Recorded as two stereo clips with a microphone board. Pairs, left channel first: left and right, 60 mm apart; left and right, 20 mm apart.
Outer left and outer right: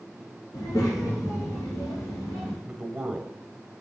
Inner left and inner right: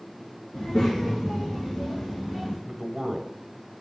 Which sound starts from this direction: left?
A child speaking, at 0.5 s.